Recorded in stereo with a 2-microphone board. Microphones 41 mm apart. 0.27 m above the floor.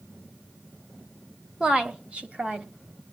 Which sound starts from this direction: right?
A woman speaking, at 1.6 s.